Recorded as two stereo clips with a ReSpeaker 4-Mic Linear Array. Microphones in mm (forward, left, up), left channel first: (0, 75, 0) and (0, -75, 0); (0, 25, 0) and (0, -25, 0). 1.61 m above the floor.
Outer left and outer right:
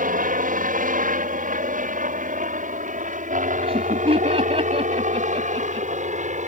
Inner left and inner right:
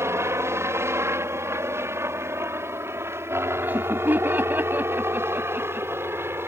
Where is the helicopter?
65° right (ahead or behind); by 6.5 s 50° right (ahead or behind).